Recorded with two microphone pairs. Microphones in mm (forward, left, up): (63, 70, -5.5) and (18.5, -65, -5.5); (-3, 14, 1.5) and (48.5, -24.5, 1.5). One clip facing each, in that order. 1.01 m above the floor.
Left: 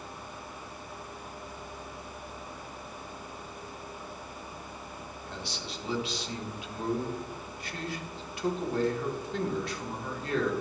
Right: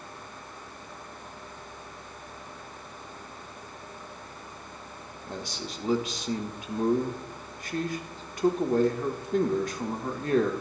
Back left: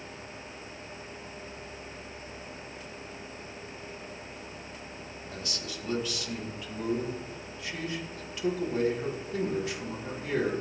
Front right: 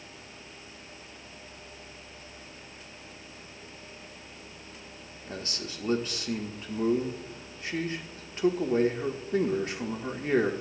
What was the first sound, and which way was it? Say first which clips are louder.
A man speaking: right 5 dB, front right 3 dB; 75° right.